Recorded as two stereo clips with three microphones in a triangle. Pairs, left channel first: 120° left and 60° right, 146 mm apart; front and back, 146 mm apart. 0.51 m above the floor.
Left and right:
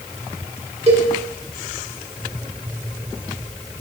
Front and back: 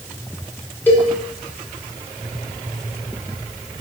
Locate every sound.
0.9 s a cowbell: 75° right, 1.4 m